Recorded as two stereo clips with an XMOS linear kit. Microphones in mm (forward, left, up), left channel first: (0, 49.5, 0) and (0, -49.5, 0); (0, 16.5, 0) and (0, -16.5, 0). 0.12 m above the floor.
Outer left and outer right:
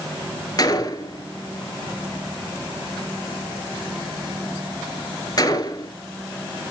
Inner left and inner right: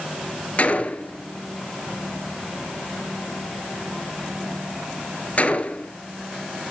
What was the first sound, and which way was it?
A gunshot, 45° left (ahead or behind).